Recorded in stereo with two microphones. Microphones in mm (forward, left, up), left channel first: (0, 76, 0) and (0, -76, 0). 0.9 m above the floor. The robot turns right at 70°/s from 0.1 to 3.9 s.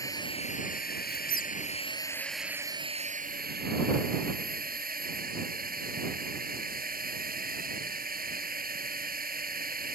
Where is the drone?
20° left; by 9.9 s 75° right.